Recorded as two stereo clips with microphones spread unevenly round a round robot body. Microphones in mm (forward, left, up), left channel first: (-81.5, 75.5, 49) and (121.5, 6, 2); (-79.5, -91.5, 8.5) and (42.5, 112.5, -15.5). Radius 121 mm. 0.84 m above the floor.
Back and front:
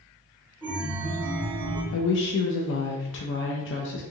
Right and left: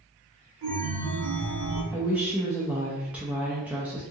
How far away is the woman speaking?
About 0.5 m.